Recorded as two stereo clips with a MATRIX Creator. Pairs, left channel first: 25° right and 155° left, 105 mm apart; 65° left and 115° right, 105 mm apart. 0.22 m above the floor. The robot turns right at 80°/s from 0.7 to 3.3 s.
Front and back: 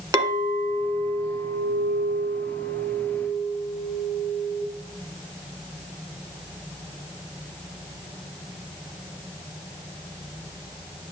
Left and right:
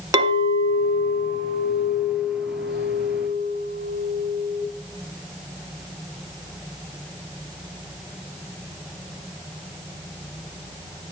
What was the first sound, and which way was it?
A clink, 160° right.